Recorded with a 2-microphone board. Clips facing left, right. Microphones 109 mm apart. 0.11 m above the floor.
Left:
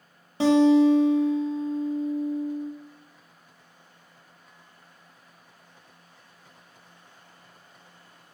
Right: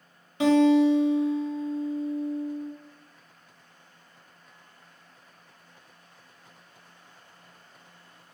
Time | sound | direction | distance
0.4 | a guitar | 30° left (ahead or behind) | 0.8 m